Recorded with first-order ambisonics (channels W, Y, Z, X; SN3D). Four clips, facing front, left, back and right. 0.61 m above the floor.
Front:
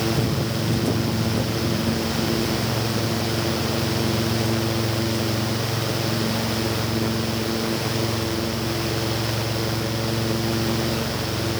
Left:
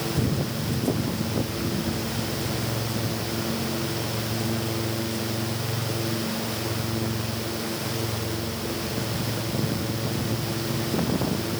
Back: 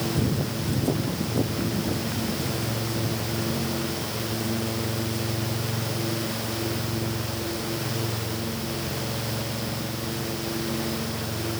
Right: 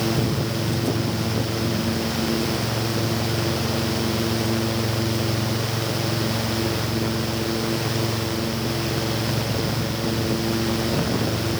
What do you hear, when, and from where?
Only background noise.